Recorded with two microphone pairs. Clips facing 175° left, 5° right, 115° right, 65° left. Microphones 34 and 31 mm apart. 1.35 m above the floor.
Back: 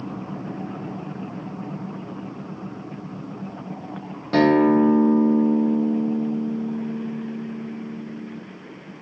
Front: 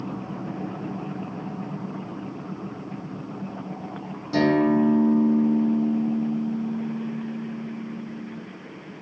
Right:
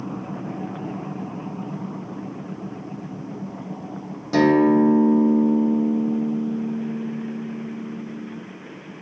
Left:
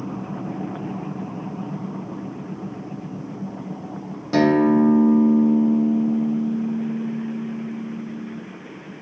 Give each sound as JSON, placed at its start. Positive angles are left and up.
{"t": 4.3, "sound": "a guitar", "azimuth_deg": 145, "distance_m": 0.5}